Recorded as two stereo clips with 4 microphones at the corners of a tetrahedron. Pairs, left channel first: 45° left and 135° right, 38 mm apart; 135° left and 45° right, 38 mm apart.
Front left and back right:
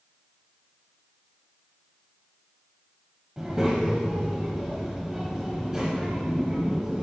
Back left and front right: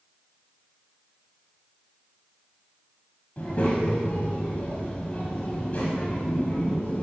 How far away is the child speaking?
About 1.1 m.